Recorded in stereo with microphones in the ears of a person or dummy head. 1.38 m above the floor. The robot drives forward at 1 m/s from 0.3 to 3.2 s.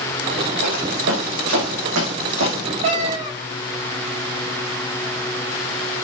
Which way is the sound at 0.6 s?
80° right.